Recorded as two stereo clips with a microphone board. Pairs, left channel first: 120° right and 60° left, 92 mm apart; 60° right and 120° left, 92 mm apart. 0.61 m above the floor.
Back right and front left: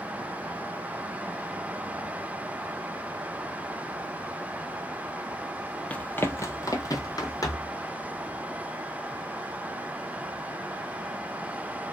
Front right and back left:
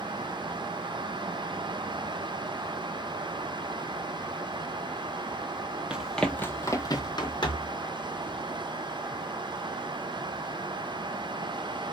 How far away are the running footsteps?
About 0.6 m.